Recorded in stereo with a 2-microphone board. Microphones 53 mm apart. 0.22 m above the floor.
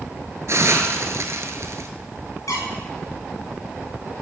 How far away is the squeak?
About 5 m.